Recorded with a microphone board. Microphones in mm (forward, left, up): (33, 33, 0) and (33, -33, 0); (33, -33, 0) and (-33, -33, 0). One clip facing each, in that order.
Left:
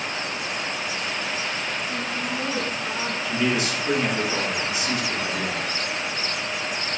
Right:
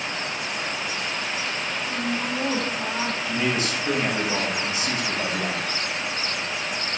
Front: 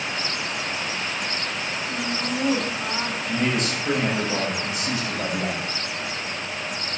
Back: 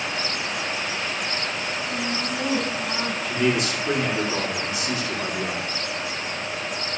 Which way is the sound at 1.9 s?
55° right.